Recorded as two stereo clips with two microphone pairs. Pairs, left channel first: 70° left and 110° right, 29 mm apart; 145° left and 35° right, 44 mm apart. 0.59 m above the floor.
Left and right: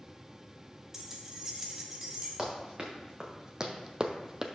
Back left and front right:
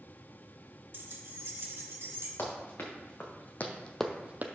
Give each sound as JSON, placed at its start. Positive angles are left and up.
{"t": 0.9, "sound": "keys jangling", "azimuth_deg": -45, "distance_m": 1.1}
{"t": 2.4, "sound": "running footsteps", "azimuth_deg": 175, "distance_m": 2.5}